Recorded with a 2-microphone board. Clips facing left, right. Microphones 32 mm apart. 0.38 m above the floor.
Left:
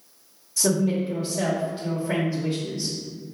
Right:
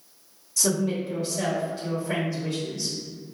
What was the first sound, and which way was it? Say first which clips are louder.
A woman speaking: left 3 dB; 20° left (ahead or behind).